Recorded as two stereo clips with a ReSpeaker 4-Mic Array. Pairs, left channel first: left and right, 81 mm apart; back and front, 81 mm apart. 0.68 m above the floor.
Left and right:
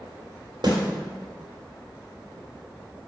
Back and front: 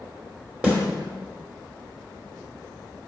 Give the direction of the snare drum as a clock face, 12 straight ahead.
2 o'clock.